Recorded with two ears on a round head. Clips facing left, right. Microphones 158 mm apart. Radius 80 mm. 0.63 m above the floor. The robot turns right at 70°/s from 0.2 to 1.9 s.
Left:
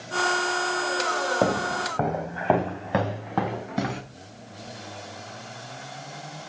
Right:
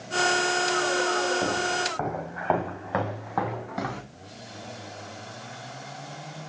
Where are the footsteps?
75° left (ahead or behind), 2.5 m; by 4.0 s 25° left (ahead or behind), 4.5 m.